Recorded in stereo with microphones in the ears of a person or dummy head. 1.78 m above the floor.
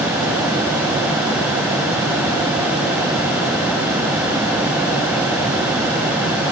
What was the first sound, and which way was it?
Only background noise.